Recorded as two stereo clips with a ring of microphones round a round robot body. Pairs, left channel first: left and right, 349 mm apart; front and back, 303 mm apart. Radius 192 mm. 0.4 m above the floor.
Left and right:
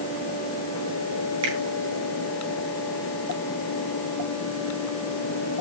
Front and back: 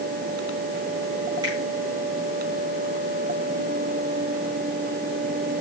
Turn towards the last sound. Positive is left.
turn(degrees=-100)